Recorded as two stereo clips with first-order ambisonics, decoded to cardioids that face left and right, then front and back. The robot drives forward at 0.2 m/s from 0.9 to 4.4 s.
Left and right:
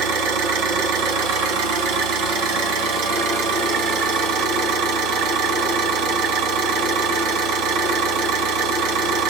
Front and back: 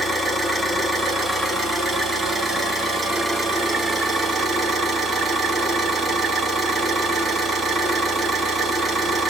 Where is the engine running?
85° right, 2 m; by 9.3 s 105° right, 2.5 m.